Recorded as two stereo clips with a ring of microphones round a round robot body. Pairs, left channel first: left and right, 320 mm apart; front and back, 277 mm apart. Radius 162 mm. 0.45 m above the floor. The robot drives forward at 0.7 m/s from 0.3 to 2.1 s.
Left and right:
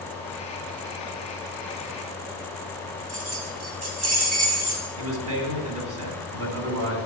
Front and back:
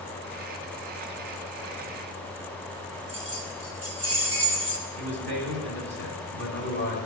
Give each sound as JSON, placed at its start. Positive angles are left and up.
{"t": 3.1, "sound": "keys jangling", "azimuth_deg": -125, "distance_m": 3.0}
{"t": 5.0, "sound": "a man speaking", "azimuth_deg": -125, "distance_m": 3.0}